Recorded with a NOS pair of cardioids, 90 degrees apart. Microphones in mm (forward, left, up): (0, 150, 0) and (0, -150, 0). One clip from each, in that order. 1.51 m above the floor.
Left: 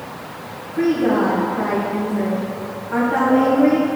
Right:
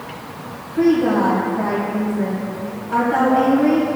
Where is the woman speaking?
Straight ahead, 1.8 m.